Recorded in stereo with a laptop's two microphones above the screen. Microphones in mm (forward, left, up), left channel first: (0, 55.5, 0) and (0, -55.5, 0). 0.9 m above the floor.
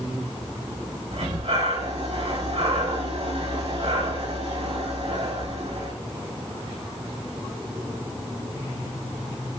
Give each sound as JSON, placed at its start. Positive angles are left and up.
{"t": 1.1, "sound": "breathing", "side_deg": -65, "distance_m": 3.0}